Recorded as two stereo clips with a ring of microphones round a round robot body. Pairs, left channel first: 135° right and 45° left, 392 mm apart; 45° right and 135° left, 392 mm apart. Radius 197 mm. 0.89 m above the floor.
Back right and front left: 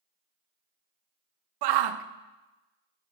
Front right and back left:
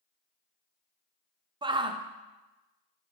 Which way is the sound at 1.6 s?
60° left.